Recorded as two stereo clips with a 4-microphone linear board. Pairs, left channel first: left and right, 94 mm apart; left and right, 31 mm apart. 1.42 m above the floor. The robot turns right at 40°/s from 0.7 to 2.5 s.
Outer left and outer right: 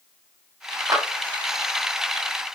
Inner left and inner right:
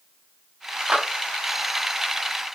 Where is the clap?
35° right (ahead or behind), 0.8 m; by 1.0 s 45° right (ahead or behind), 0.8 m.